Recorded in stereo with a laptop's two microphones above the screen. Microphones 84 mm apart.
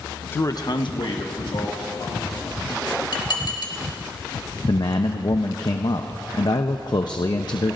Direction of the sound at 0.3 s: 15° left (ahead or behind).